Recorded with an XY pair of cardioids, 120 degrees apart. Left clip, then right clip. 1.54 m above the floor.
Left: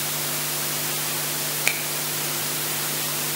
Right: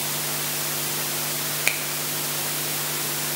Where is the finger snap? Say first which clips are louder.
Even; 5° right, 1.0 m.